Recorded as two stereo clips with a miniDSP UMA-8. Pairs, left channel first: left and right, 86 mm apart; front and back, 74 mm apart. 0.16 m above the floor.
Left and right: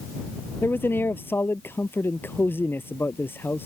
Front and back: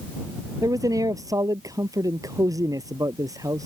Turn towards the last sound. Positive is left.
turn(degrees=150)